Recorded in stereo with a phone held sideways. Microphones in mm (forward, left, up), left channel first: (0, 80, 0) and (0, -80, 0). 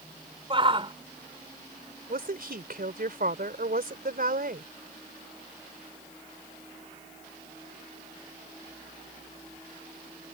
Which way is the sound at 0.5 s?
35° right (ahead or behind).